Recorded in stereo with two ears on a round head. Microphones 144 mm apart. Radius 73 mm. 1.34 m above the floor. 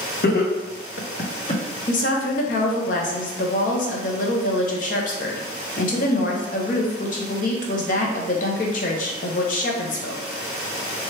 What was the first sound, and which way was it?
Laughter, 65° left (ahead or behind).